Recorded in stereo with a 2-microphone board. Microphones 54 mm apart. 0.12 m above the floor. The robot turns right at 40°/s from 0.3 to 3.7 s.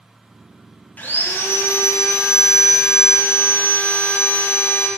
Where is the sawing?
30° left, 0.5 m; by 4.9 s 140° left, 0.5 m.